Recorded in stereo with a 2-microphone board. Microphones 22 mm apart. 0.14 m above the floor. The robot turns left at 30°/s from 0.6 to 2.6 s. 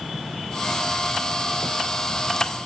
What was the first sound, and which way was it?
Only background noise.